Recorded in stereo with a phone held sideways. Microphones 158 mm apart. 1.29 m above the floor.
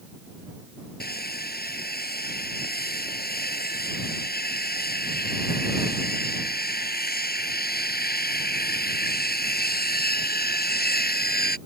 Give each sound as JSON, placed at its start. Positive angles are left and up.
{"t": 1.0, "sound": "sawing", "side_deg": 80}